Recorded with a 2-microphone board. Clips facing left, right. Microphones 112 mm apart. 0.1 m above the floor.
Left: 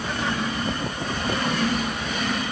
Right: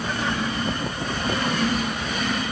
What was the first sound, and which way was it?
Only background noise.